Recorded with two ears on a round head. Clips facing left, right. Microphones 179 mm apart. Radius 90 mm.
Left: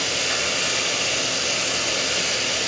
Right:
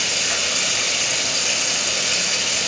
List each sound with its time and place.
0.0 s running water: 55° right (ahead or behind), 8 m